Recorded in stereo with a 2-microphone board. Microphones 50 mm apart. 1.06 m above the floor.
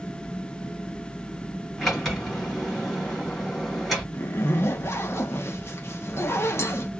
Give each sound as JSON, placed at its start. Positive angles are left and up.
{"t": 1.8, "sound": "a sliding door", "side_deg": 5, "distance_m": 2.0}
{"t": 4.1, "sound": "a zipper", "side_deg": 60, "distance_m": 0.7}